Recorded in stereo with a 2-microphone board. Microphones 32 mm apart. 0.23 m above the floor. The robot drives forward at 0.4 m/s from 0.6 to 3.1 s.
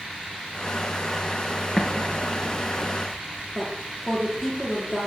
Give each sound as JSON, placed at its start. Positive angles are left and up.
{"t": 1.8, "sound": "an explosion", "side_deg": -5, "distance_m": 3.0}
{"t": 3.5, "sound": "a woman speaking", "side_deg": -5, "distance_m": 6.0}